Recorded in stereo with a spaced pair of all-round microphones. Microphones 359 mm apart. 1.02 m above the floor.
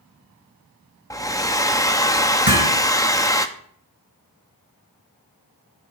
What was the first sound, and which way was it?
A hair dryer, 10° left (ahead or behind).